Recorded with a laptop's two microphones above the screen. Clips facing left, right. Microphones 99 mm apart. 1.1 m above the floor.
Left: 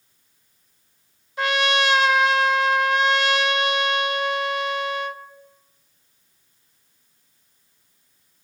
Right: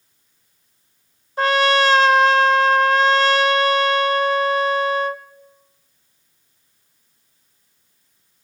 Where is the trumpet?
40° right (ahead or behind), 1.0 m.